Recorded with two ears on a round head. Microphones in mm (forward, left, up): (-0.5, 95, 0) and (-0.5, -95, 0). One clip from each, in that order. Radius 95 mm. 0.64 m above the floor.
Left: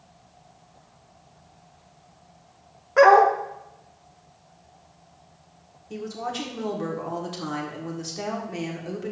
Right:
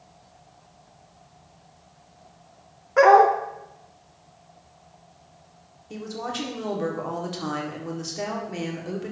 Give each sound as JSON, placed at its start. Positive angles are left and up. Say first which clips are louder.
{"t": 3.0, "sound": "a dog barking", "louder": "even", "side_deg": 10, "distance_m": 0.6}
{"t": 5.9, "sound": "a woman speaking", "louder": "left 1 dB", "side_deg": 0, "distance_m": 1.5}